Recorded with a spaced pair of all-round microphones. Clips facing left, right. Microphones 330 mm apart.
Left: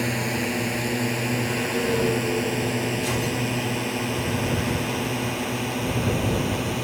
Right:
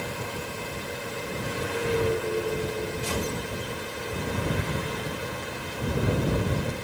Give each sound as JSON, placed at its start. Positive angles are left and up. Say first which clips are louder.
{"t": 0.0, "sound": "a drone", "louder": "left 9 dB", "side_deg": 90}